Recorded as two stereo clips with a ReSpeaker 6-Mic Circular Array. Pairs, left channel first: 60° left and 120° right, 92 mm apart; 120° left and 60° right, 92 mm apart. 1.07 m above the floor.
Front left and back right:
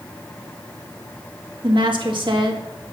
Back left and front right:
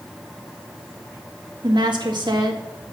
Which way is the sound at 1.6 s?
95° right.